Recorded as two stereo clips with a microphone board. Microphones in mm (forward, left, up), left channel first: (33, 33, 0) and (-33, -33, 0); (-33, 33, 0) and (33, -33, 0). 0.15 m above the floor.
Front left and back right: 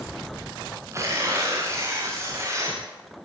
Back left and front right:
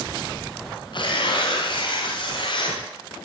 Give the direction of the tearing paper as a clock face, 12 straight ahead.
6 o'clock.